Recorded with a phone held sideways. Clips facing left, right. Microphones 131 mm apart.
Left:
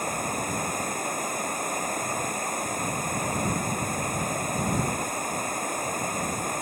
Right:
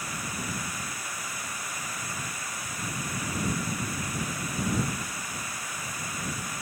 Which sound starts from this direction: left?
Running water, at 0.0 s.